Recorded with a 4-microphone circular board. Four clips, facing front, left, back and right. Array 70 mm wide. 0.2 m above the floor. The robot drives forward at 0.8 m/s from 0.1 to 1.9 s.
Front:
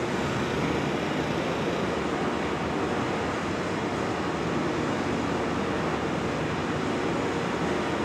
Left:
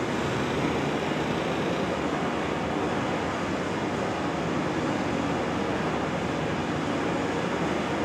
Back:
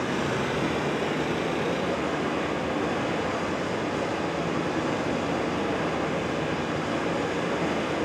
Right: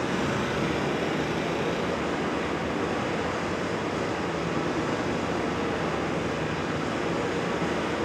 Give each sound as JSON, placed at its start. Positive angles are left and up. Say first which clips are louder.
{"t": 0.0, "sound": "running water", "louder": "even, back 1 dB", "azimuth_deg": -130, "distance_m": 1.6}